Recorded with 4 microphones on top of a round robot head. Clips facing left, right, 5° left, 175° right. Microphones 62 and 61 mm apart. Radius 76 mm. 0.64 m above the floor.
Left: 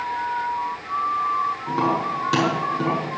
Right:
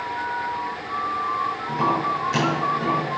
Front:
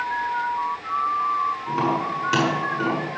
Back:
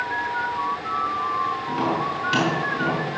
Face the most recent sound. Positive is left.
turn(degrees=80)